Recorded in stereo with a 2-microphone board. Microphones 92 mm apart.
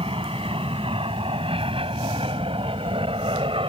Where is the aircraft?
70° right (ahead or behind).